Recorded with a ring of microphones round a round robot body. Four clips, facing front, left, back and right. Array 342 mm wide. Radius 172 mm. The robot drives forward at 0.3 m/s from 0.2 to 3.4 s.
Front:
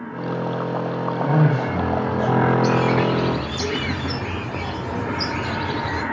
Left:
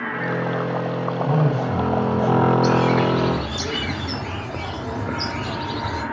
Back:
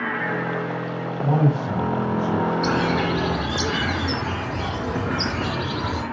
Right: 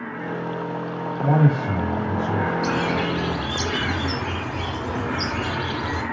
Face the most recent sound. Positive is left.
turn(degrees=-155)